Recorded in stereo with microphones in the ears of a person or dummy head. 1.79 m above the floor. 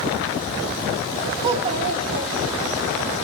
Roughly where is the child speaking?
Right.